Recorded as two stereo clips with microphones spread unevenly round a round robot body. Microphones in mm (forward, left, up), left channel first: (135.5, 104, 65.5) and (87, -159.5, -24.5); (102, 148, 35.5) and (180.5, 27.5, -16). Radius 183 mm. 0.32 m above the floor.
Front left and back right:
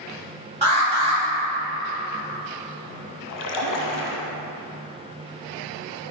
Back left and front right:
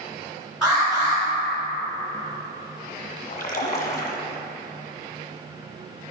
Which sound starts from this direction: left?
A splash, at 3.3 s.